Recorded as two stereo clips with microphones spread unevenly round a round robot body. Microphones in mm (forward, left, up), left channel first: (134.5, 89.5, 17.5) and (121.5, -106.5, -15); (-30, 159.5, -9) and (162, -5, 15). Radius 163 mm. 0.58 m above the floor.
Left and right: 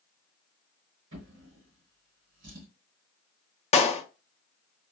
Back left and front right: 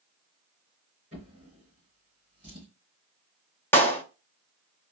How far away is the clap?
About 0.6 m.